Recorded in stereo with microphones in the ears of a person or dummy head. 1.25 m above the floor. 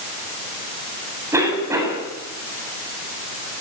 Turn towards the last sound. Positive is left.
turn(degrees=-15)  # may be behind; listen again after turning